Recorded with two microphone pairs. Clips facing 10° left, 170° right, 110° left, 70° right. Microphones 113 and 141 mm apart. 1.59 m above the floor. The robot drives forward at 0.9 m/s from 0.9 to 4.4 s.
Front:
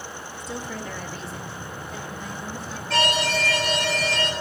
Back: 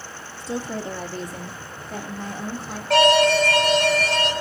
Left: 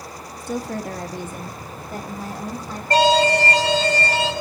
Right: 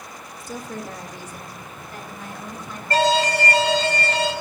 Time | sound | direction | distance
0.4 | a woman speaking | 130° left | 0.9 m
2.9 | an alarm | 165° left | 2.0 m